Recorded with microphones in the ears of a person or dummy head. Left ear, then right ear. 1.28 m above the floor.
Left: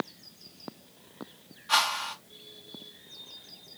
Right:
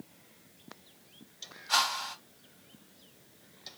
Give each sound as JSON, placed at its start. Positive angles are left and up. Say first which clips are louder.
{"t": 1.7, "sound": "a whoosh", "louder": "left 3 dB", "side_deg": 20, "distance_m": 1.0}